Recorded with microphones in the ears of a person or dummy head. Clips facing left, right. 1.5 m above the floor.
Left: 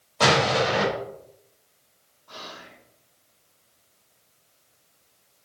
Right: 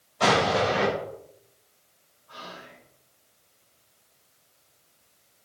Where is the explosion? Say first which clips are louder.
Left 1 dB; 75° left (ahead or behind), 6 m.